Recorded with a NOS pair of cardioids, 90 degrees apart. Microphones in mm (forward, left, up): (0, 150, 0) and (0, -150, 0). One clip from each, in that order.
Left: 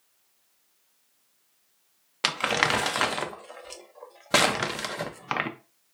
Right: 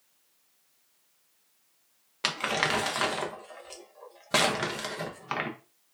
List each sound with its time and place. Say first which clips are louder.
2.2 s crumpling: left 4 dB; 20° left, 0.7 m